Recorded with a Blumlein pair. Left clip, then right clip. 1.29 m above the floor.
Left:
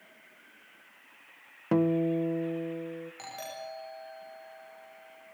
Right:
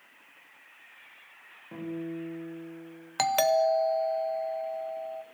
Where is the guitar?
50° left, 1.0 m.